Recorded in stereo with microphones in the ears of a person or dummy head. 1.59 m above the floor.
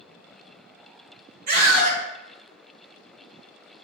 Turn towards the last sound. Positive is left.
turn(degrees=-50)  # may be behind; listen again after turning